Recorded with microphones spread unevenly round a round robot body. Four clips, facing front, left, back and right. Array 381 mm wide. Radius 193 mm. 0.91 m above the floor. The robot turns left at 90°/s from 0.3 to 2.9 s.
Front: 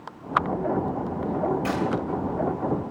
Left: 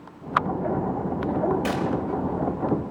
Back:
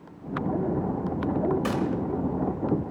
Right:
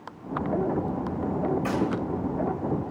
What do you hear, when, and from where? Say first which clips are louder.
1.6 s a gunshot: even, front 1 dB; 160° left, 3.5 m; by 1.9 s 140° left, 3.5 m